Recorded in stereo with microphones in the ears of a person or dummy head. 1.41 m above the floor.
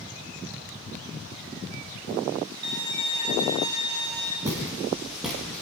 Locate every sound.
2.6 s a violin: 25° right (ahead or behind), 3.5 m
4.5 s footsteps: 15° right (ahead or behind), 4 m; by 5.6 s 5° left (ahead or behind), 3 m